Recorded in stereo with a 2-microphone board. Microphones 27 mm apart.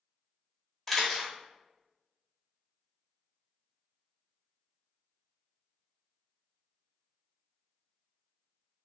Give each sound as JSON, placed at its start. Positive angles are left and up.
{"t": 0.9, "sound": "a camera shutter", "side_deg": 5, "distance_m": 1.0}